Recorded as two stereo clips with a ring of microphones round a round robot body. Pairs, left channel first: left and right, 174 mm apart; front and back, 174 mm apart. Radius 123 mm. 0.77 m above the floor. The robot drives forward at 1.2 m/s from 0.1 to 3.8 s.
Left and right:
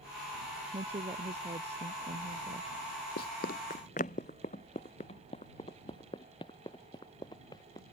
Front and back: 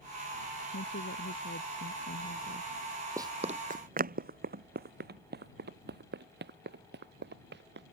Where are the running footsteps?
110° left; by 7.8 s 165° left.